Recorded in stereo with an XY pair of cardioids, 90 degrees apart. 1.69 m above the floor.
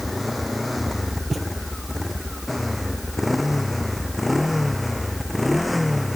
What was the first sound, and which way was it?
A motorcycle, 15° left.